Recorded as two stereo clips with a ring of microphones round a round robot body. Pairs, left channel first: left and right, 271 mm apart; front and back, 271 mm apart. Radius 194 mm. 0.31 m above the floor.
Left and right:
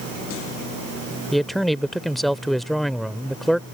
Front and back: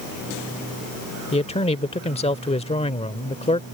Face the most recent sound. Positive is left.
turn(degrees=0)